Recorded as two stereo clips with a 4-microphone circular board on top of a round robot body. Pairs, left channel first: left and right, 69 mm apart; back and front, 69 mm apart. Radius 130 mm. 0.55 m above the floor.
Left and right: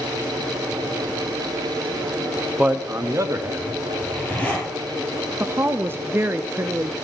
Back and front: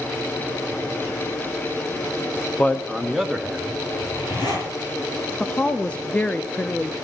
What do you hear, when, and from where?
2.6 s a man speaking: 135° right, 1.2 m; by 3.8 s 75° right, 2.0 m
4.0 s a zipper: 160° left, 5 m
5.4 s a woman speaking: 115° right, 0.8 m